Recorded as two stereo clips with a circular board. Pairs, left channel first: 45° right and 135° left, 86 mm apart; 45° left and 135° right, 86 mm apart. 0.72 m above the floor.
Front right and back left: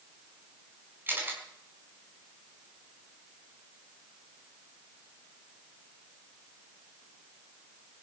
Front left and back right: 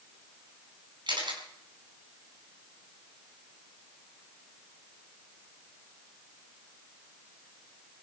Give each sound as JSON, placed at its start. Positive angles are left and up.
{"t": 1.1, "sound": "a camera shutter", "azimuth_deg": -160, "distance_m": 4.5}